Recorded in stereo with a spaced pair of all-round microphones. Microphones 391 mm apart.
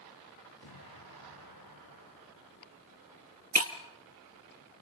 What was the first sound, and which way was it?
An explosion, 80° left.